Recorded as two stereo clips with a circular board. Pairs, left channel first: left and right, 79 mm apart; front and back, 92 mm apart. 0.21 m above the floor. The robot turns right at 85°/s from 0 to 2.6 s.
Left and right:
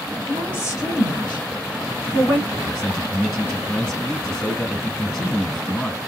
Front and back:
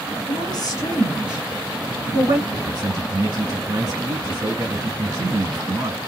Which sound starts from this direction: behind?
A man speaking, at 2.5 s.